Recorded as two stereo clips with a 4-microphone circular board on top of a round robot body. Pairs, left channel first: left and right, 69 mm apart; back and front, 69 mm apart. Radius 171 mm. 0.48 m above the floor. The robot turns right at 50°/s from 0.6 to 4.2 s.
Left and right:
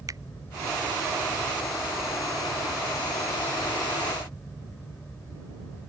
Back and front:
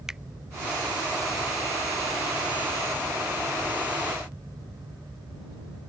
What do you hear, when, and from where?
0.1 s a finger snap: 85° right